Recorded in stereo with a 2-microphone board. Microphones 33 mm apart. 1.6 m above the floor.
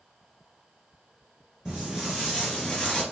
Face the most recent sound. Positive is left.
turn(degrees=20)  # may be behind; listen again after turning